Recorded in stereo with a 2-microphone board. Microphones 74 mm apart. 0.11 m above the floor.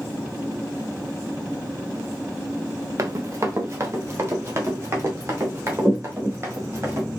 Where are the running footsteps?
40° right (ahead or behind), 0.9 m; by 7.1 s 35° right (ahead or behind), 3 m.